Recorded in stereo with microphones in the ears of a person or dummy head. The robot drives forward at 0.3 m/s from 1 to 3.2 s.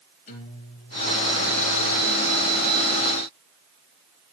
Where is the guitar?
50° left (ahead or behind), 1.7 m; by 1.4 s 55° left (ahead or behind), 1.7 m.